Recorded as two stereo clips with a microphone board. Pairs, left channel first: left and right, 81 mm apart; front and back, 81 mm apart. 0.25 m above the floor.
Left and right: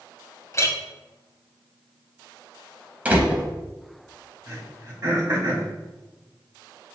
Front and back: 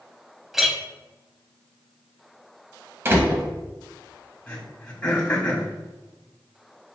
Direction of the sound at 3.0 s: 150° right.